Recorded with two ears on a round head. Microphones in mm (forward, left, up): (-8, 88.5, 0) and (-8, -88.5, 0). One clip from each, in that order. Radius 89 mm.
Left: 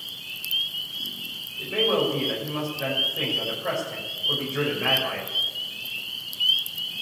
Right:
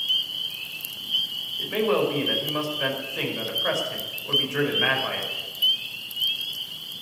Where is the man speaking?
50° right (ahead or behind), 5.5 m.